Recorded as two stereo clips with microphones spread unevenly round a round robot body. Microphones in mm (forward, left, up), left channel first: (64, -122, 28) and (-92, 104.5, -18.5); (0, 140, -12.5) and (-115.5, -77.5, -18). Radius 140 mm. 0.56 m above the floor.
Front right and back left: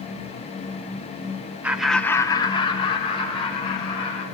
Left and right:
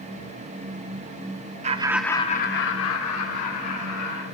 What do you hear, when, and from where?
1.6 s laughter: 165° right, 0.7 m; by 4.2 s 20° left, 2.5 m